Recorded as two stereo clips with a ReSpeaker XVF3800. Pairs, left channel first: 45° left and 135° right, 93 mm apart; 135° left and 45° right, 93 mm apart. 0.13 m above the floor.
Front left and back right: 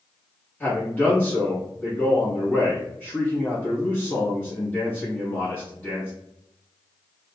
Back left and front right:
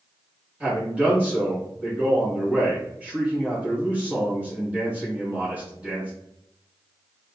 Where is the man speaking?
5° left, 1.7 m.